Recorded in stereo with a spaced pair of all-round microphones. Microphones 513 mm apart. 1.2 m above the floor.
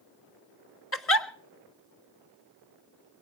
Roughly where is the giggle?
Left.